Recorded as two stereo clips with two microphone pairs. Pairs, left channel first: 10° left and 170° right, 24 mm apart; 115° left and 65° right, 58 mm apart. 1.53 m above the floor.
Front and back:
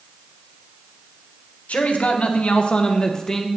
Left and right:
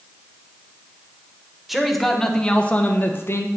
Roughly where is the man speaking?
Ahead.